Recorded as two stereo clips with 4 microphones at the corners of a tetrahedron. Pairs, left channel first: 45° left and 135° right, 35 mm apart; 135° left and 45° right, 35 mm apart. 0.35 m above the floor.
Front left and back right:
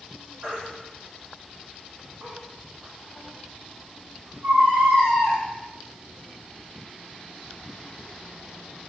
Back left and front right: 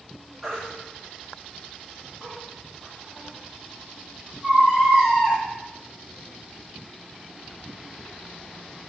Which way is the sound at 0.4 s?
125° right.